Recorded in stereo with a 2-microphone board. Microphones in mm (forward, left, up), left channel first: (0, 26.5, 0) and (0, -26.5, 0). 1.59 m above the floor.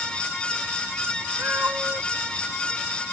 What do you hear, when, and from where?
1.4 s a cat meowing: 40° right (ahead or behind)